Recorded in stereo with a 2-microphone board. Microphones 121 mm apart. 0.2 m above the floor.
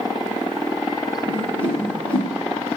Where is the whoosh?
45° left (ahead or behind), 3.5 m.